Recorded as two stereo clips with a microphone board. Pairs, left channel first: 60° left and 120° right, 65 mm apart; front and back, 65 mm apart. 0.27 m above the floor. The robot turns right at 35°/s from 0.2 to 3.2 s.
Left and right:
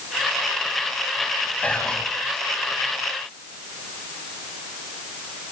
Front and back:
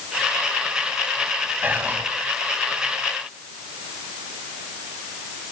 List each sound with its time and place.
1.6 s whispering: 125° left, 1.4 m; by 2.1 s 140° left, 1.4 m